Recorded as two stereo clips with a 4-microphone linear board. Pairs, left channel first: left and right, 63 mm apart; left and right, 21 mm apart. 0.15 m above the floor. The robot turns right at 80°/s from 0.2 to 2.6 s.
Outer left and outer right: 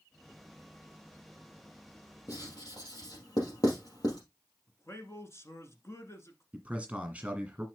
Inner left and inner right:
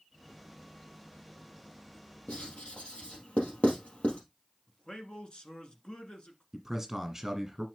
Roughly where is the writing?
Left.